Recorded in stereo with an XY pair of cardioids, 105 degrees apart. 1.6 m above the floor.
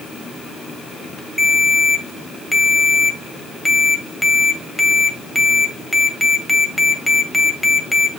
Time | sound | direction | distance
1.4 | a ringtone | 5° left | 2 m